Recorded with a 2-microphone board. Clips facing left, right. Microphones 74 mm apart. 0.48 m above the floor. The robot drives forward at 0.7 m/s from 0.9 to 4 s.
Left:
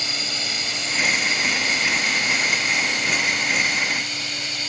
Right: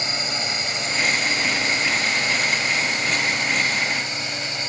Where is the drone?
25° right (ahead or behind).